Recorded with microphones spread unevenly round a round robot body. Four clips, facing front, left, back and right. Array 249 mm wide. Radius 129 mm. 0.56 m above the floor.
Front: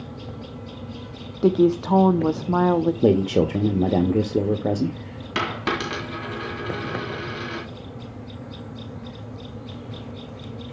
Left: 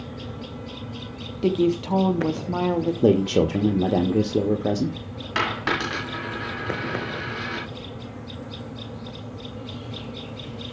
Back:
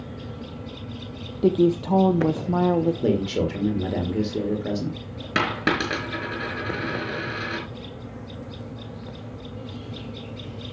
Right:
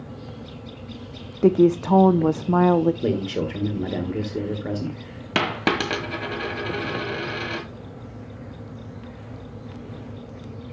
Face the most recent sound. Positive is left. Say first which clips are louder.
# right 2 dB, back 2 dB
turn(degrees=-125)